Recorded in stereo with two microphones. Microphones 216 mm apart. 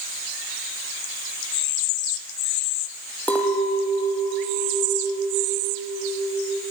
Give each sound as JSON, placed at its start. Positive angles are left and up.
{"t": 3.3, "sound": "a clink", "side_deg": 5, "distance_m": 4.0}